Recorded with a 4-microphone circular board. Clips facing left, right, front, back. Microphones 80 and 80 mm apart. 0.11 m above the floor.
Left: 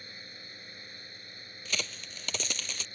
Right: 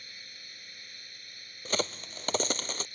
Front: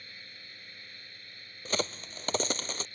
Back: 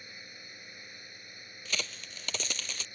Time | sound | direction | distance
0.0 | a drone | 120° left | ?
1.6 | a crack | 45° right | ?